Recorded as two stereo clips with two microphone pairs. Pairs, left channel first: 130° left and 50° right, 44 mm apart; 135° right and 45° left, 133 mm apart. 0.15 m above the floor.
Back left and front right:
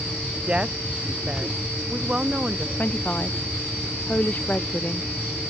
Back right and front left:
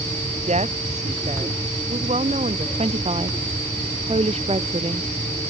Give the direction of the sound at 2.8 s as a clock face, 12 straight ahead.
9 o'clock.